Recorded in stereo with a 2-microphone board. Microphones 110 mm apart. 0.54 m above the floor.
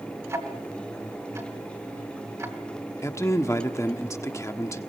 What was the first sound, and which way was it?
Ticking, 25° right (ahead or behind).